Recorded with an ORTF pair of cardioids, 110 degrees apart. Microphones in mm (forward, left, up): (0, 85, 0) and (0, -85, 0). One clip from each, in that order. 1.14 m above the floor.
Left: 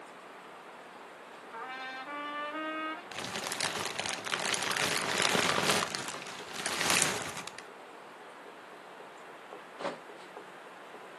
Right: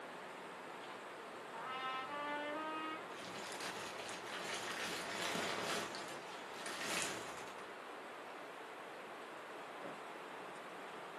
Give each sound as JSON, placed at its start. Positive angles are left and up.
{"t": 1.5, "sound": "a trumpet", "azimuth_deg": 60, "distance_m": 1.9}
{"t": 3.1, "sound": "crumpling", "azimuth_deg": 70, "distance_m": 0.5}